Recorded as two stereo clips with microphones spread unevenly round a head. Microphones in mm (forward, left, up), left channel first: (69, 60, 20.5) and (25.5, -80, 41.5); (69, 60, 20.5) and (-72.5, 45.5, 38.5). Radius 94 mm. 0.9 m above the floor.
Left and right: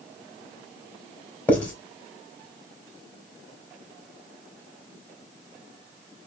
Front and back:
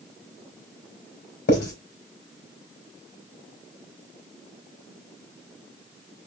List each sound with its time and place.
1.5 s writing: 10° right, 4 m